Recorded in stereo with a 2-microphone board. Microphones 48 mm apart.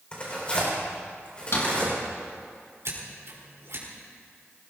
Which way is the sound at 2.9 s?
75° right (ahead or behind).